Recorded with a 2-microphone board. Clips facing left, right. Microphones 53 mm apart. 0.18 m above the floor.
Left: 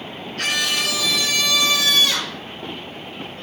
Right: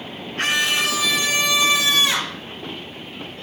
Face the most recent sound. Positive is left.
turn(degrees=-25)  # may be behind; listen again after turning